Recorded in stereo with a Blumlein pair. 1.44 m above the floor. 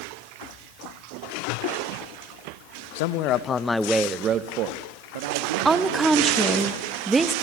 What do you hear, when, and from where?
3.0 s a man speaking: 50° left, 1.4 m; by 6.7 s 65° right, 3.5 m
5.7 s a woman speaking: 10° right, 1.5 m